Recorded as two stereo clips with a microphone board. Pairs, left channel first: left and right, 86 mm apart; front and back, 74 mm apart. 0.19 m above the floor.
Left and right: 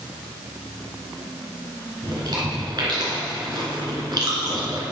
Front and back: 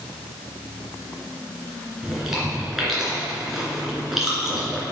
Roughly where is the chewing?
Right.